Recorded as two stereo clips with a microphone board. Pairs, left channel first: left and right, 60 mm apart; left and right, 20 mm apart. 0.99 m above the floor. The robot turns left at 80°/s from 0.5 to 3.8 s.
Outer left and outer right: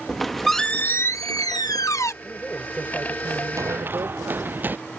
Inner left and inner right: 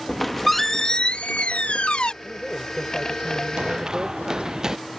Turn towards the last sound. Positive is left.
turn(degrees=-30)  # may be behind; listen again after turning